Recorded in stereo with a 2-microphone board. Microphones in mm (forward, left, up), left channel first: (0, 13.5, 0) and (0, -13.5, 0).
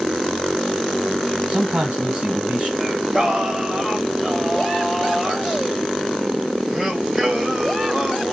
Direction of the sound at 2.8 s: 20° right (ahead or behind).